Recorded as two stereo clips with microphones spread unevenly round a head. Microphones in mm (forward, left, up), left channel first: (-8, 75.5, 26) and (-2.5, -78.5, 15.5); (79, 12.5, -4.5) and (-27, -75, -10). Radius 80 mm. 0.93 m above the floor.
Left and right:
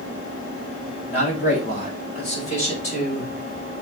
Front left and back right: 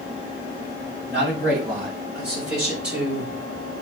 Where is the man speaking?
140° left, 6.5 m; by 3.3 s 135° left, 5 m.